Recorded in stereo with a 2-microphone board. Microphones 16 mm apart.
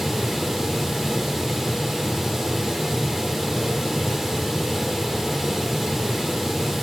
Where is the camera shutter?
I don't hear a camera shutter.